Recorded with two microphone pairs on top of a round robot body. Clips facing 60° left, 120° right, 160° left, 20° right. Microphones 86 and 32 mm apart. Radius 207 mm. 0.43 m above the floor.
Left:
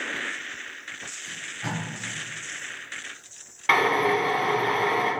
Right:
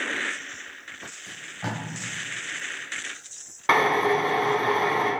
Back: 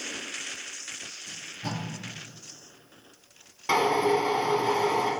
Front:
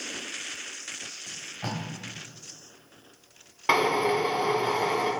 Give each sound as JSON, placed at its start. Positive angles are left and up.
{"t": 1.3, "sound": "tape being pulled", "azimuth_deg": -50, "distance_m": 1.5}
{"t": 3.7, "sound": "a drill", "azimuth_deg": -65, "distance_m": 1.7}